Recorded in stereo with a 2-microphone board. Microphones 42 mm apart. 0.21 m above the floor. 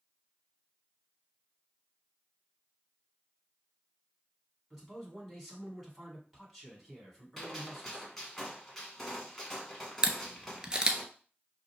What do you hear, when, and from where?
4.7 s a man speaking: 5° right (ahead or behind), 1.9 m
7.4 s a gunshot: 5° left (ahead or behind), 1.2 m
10.0 s a camera shutter: 20° right (ahead or behind), 0.5 m